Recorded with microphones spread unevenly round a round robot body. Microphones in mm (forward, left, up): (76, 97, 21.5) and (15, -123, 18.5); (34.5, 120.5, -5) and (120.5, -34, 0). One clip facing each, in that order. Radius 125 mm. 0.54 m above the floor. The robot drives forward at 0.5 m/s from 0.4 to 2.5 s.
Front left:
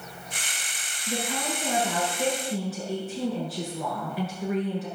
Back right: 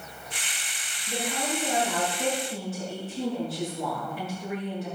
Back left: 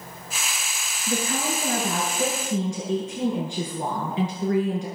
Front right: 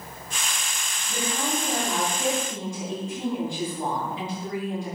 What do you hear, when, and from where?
1.1 s a woman speaking: 105° left, 7.5 m; by 4.9 s 110° left, 7.5 m